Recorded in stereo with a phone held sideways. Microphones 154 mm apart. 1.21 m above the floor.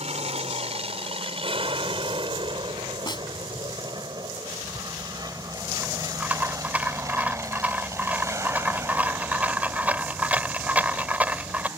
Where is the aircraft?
40° right (ahead or behind); by 11.8 s 15° right (ahead or behind).